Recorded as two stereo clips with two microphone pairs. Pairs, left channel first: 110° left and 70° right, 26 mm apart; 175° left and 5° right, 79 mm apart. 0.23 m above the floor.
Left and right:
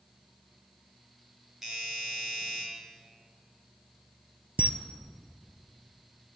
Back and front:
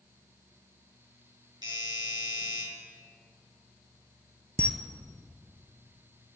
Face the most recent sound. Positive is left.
turn(degrees=-60)